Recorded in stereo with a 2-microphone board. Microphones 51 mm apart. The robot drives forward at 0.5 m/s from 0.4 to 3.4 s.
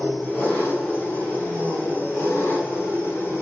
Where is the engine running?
40° left (ahead or behind), 3.5 m; by 3.4 s 55° left (ahead or behind), 2.5 m.